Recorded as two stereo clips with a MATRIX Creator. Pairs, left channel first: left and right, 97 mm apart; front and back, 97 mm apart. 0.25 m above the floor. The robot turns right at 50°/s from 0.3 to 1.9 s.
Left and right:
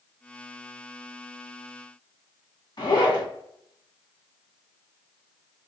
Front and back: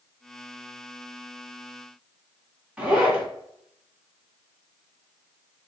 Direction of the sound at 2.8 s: 100° left.